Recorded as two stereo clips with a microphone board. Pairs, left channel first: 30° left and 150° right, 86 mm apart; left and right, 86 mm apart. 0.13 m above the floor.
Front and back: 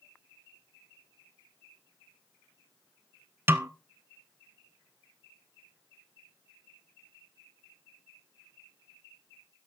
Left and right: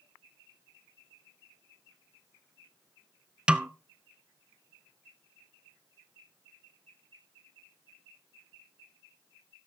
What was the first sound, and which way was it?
A snare drum, 155° right.